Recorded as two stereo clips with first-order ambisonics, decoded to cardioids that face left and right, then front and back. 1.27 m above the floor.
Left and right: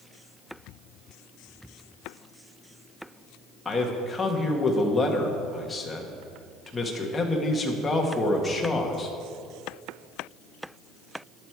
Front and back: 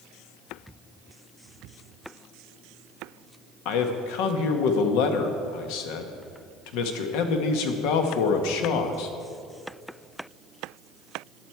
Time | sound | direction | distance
3.6 | a man speaking | 10° left | 1.4 m